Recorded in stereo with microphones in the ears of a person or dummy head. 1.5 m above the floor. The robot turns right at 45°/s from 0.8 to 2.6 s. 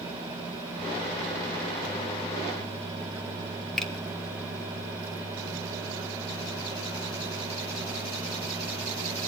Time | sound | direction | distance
3.8 | a finger snap | 5° left (ahead or behind) | 1.4 m